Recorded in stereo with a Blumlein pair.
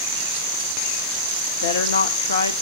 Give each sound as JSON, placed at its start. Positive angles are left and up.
{"t": 1.6, "sound": "a woman speaking", "azimuth_deg": 60, "distance_m": 1.5}